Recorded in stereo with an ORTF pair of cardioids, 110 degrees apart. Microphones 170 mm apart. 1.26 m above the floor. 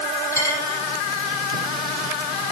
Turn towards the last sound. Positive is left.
turn(degrees=15)